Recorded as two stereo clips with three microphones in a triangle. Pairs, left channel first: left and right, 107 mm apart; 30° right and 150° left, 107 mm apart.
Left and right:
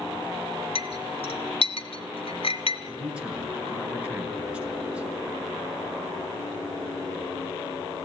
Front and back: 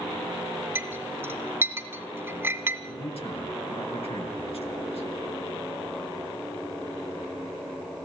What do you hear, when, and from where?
0.8 s a clink: 85° left, 1.7 m
2.9 s a man speaking: 10° right, 5.5 m